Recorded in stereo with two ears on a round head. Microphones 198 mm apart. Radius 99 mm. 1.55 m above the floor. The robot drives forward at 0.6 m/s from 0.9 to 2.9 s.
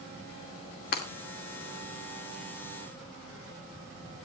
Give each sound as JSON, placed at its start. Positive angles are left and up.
{"t": 0.9, "sound": "breaking glass", "side_deg": 45, "distance_m": 2.0}